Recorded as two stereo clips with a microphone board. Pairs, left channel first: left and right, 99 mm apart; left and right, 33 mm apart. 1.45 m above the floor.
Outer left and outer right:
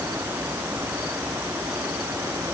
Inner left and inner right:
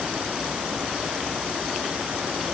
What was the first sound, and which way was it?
Only background noise.